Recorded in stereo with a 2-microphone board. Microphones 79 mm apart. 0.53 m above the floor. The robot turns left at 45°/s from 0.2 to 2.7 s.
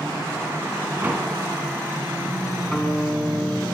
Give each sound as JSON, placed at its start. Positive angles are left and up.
{"t": 1.0, "sound": "a door slam", "side_deg": -20, "distance_m": 4.0}
{"t": 2.7, "sound": "a guitar", "side_deg": 5, "distance_m": 5.5}